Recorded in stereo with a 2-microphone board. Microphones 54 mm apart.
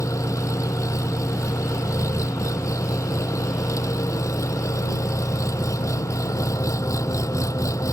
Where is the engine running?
85° left.